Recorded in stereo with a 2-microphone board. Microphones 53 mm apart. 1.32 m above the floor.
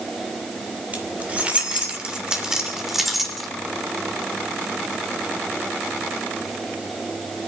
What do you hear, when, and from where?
0.9 s keys jangling: 30° right (ahead or behind), 3 m; by 3.5 s centre (ahead or behind), 2.5 m